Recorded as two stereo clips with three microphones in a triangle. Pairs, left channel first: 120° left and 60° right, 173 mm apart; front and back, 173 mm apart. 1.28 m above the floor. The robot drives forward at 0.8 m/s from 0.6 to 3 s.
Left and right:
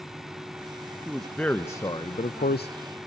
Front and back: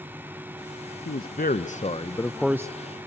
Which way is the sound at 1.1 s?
30° left.